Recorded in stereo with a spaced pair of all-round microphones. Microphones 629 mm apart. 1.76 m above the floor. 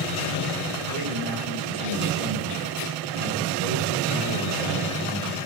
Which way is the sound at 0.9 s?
80° right.